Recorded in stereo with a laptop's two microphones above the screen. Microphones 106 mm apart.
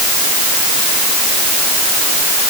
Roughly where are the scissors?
I don't hear scissors.